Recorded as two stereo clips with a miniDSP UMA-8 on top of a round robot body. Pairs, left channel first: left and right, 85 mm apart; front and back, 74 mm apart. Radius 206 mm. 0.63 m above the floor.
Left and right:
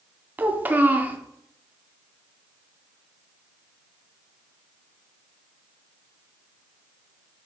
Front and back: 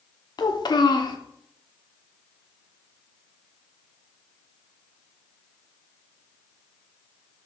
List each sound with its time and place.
0.4 s a child speaking: 20° right, 1.2 m